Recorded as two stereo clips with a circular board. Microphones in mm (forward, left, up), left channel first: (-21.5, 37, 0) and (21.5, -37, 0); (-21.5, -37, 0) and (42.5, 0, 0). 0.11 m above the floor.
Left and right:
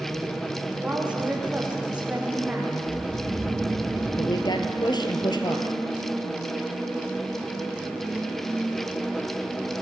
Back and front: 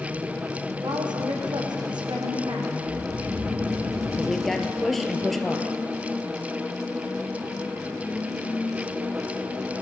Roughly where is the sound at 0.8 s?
Ahead.